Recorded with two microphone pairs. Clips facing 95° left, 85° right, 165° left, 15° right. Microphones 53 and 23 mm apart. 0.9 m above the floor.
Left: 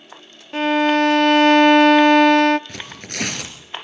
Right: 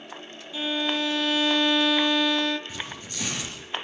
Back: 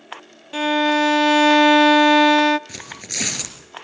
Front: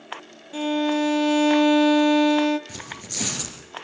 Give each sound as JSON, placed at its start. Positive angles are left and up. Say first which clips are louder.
{"t": 0.5, "sound": "a violin", "louder": "left 11 dB, back 5 dB", "azimuth_deg": 115, "distance_m": 0.6}
{"t": 2.7, "sound": "tearing paper", "louder": "left 3 dB, back 3 dB", "azimuth_deg": 120, "distance_m": 3.5}